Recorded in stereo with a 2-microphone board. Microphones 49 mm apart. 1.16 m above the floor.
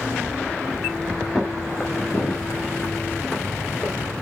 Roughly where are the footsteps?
Centre.